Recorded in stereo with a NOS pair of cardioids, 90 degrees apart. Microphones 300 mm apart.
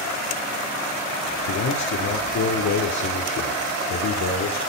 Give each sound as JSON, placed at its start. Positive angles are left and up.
{"t": 1.5, "sound": "a man speaking", "azimuth_deg": 65, "distance_m": 3.0}